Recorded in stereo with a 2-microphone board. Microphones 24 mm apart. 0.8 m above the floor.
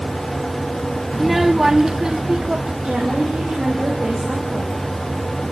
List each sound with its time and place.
1.1 s a child speaking: 5° right (ahead or behind), 0.5 m; by 2.7 s 35° right (ahead or behind), 1.2 m
2.8 s a woman speaking: 60° right (ahead or behind), 4.5 m